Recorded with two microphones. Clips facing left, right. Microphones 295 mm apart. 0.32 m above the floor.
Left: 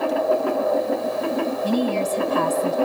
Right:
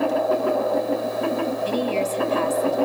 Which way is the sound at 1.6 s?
50° left (ahead or behind).